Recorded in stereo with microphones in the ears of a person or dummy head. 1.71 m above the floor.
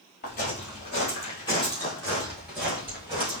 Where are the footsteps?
35° left (ahead or behind), 2.0 m; by 3.4 s 20° right (ahead or behind), 1.9 m.